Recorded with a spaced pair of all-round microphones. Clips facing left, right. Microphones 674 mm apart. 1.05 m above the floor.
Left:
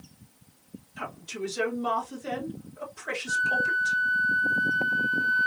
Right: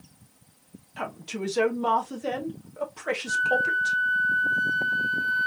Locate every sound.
1.0 s a woman speaking: 80° right, 1.3 m
3.3 s a flute: 75° right (ahead or behind), 2 m